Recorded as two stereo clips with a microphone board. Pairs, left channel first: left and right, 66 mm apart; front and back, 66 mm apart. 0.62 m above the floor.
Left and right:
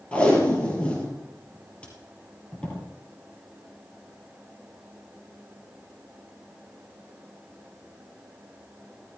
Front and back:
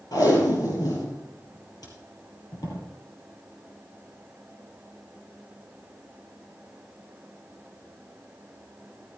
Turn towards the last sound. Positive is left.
turn(degrees=20)